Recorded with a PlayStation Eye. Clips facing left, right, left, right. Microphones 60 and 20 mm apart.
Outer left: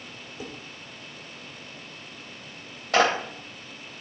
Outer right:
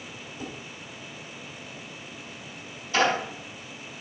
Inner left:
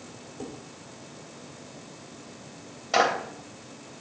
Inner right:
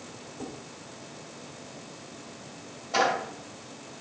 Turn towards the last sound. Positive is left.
turn(degrees=75)  # may be behind; listen again after turning